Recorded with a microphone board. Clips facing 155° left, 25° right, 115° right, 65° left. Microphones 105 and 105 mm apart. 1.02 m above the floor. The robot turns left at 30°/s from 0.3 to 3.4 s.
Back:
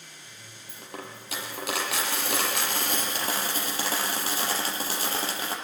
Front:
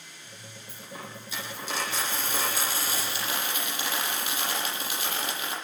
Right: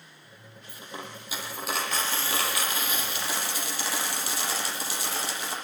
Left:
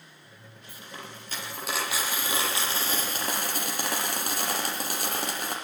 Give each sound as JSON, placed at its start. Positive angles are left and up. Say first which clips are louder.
{"t": 0.7, "sound": "a dropped coin", "louder": "back 2 dB, right 3 dB", "azimuth_deg": -175, "distance_m": 7.0}